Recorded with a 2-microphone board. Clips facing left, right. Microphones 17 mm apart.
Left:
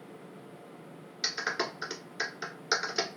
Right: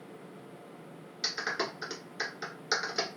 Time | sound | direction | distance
1.2 | a clap | 15° left (ahead or behind) | 1.1 m